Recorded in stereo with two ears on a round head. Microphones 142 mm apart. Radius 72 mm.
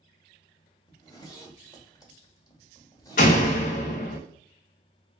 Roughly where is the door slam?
Left.